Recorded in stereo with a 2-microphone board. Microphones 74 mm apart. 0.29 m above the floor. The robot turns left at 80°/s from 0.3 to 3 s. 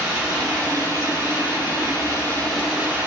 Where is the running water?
175° right, 0.9 m; by 3.1 s 30° right, 0.9 m.